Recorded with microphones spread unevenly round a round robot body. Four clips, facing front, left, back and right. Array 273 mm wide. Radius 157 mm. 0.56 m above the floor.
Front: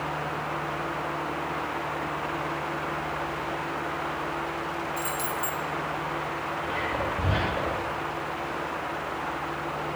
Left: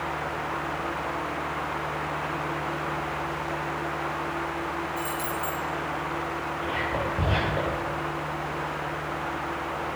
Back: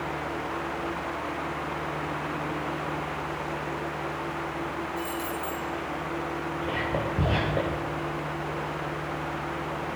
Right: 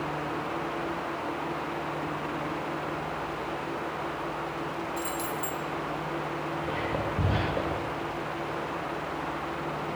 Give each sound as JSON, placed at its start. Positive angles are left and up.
{"t": 5.0, "sound": "keys jangling", "azimuth_deg": -40, "distance_m": 3.0}
{"t": 6.6, "sound": "whispering", "azimuth_deg": -160, "distance_m": 2.5}